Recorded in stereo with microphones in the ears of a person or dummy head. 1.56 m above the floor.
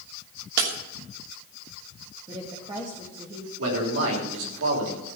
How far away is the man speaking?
About 5 m.